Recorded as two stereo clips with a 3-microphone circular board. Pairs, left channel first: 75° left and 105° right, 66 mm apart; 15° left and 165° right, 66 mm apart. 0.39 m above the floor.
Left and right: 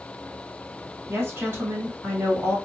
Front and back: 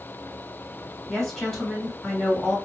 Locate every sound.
1.1 s a woman speaking: 65° right, 1.5 m